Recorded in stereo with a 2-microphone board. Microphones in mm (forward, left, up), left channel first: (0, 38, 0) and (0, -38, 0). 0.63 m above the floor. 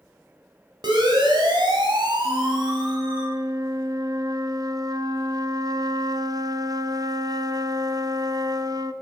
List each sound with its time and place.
0.8 s a siren: 75° right (ahead or behind), 4.5 m
2.2 s a flute: 55° right (ahead or behind), 0.8 m